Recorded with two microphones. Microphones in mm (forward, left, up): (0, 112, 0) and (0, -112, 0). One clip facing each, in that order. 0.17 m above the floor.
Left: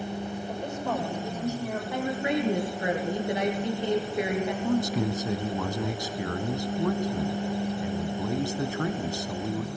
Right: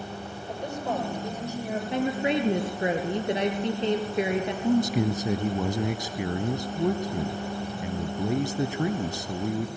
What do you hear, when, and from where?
0.5 s a woman speaking: 15° right (ahead or behind), 7.5 m
1.9 s a woman speaking: 25° right (ahead or behind), 3 m
4.6 s a man speaking: 20° right (ahead or behind), 1.0 m